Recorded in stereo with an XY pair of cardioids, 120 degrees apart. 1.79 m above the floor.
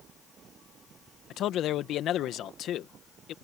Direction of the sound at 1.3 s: 60° left.